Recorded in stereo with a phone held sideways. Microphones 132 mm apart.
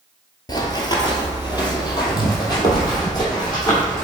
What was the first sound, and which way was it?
Running footsteps, 30° left (ahead or behind).